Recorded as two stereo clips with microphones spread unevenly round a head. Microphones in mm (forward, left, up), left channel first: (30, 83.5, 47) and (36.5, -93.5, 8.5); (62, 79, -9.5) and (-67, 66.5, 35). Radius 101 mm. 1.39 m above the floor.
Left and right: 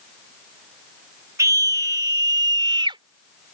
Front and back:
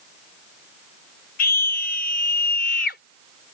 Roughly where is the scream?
Ahead.